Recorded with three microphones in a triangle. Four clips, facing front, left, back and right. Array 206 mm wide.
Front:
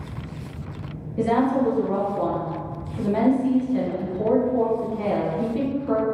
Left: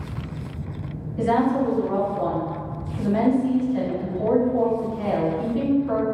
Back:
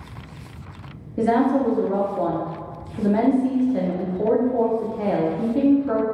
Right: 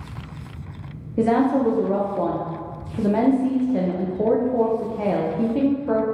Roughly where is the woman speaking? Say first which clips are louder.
Right 2 dB, back 2 dB; right.